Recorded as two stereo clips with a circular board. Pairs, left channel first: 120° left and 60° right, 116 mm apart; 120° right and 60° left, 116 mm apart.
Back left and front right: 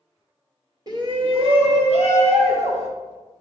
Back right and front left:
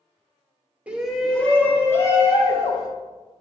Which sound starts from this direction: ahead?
A shout, at 0.9 s.